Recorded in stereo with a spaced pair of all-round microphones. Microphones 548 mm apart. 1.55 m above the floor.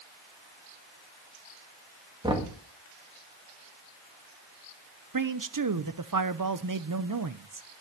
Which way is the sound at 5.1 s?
35° right (ahead or behind).